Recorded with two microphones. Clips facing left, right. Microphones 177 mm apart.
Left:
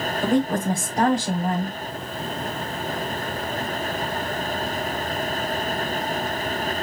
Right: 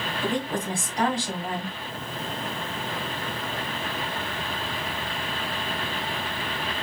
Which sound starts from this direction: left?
A woman speaking, at 0.2 s.